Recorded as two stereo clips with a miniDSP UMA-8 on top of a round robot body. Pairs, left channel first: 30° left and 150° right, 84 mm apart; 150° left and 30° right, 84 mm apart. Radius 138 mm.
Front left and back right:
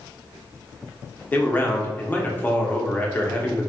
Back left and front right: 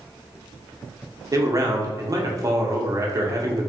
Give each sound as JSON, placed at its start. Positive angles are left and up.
{"t": 1.3, "sound": "a man speaking", "azimuth_deg": -25, "distance_m": 0.9}